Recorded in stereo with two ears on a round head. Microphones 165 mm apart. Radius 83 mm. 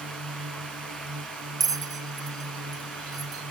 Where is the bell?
20° right (ahead or behind).